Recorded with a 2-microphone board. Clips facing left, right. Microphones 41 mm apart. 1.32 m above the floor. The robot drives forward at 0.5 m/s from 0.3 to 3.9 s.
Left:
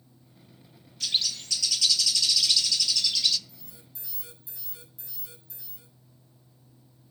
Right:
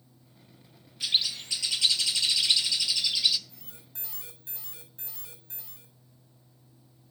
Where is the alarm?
55° right (ahead or behind), 7.5 m.